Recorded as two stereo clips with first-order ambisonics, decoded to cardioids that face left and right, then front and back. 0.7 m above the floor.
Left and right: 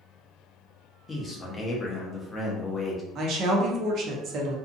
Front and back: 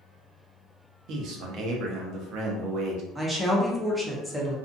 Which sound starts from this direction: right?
A woman speaking, at 3.1 s.